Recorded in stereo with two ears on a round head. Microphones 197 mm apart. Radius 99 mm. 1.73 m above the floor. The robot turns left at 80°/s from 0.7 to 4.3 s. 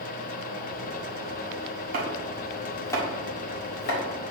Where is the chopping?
40° right (ahead or behind), 1.8 m; by 4.0 s 50° left (ahead or behind), 1.8 m.